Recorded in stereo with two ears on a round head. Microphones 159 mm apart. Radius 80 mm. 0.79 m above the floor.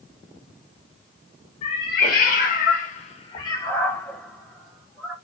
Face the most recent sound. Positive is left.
turn(degrees=-5)  # may be behind; listen again after turning